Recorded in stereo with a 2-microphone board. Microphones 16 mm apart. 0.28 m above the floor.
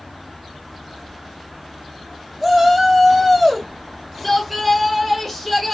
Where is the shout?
10° right (ahead or behind), 1.8 m; by 5.7 s 5° left (ahead or behind), 1.3 m.